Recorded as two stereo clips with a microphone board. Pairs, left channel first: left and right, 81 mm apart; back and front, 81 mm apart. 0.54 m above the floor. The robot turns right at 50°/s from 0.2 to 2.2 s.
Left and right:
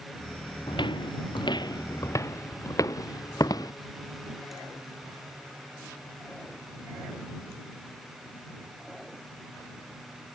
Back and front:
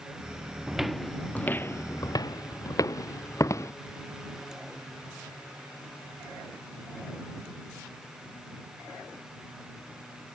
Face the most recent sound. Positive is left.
turn(degrees=130)